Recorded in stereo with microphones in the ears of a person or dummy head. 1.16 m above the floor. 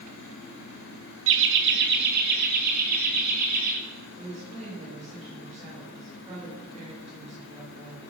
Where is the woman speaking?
35° right (ahead or behind), 4.5 m.